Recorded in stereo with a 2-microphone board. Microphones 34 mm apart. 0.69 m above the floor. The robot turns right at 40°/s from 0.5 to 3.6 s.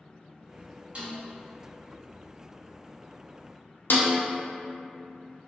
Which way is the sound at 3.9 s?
75° left (ahead or behind).